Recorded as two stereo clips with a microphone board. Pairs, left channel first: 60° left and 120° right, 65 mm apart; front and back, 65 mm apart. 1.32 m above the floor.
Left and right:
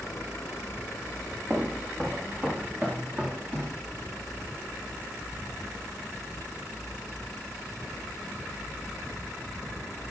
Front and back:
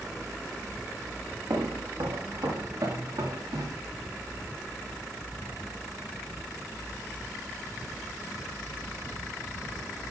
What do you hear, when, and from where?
1.5 s footsteps: 175° left, 5.5 m; by 3.8 s 170° left, 7 m